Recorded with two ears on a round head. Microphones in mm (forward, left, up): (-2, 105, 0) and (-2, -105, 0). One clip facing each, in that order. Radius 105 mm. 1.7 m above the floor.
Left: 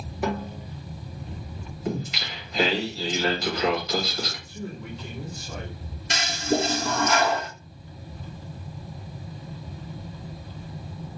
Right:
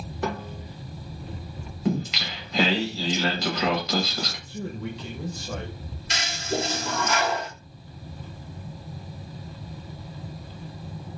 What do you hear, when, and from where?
0.2 s a snare drum: 10° left (ahead or behind), 1.4 m
1.9 s singing: 65° right (ahead or behind), 1.7 m
4.5 s a man speaking: 60° right (ahead or behind), 1.5 m
6.1 s a toilet flushing: 45° left (ahead or behind), 1.0 m